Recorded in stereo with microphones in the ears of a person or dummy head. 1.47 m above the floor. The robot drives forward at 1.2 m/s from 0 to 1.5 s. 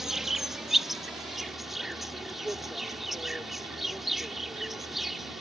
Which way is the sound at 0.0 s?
5° right (ahead or behind).